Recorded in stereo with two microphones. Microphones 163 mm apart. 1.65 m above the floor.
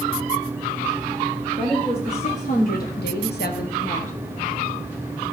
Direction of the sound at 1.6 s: 25° left (ahead or behind).